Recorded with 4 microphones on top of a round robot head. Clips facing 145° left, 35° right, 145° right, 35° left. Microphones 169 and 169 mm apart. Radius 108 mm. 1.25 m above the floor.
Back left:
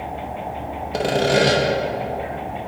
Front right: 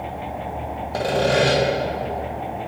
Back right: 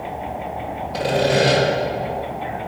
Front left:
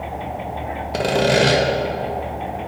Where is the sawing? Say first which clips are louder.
Back left 1 dB, front left 1 dB; 75° left, 1.1 m.